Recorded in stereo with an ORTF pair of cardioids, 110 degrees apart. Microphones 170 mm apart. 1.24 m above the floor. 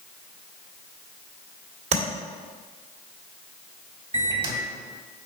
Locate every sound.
1.9 s tapping: 40° right, 2 m
4.1 s a microwave: 30° right, 2 m